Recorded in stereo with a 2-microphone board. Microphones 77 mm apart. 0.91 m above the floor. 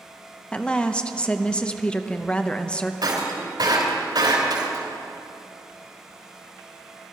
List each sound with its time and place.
0.5 s a woman speaking: 15° left (ahead or behind), 0.6 m
3.0 s breaking glass: 70° right (ahead or behind), 3 m